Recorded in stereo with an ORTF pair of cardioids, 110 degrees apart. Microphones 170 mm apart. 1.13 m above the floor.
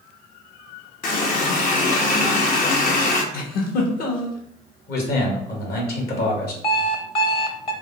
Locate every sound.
1.0 s a running tap: 60° left, 0.8 m
3.3 s a giggle: 65° left, 1.1 m
4.9 s a man speaking: 70° left, 1.8 m
6.6 s an alarm clock: 30° left, 0.8 m